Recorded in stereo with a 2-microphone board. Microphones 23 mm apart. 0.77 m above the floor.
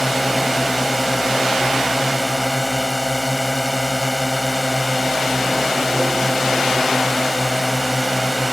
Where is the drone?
Centre (ahead or behind).